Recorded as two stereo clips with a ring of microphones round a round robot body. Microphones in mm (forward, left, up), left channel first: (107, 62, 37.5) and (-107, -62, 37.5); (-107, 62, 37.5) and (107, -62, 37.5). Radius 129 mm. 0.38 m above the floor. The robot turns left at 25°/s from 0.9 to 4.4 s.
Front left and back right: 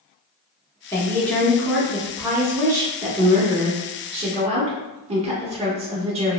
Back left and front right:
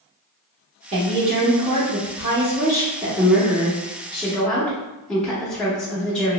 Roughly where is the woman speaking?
Ahead right.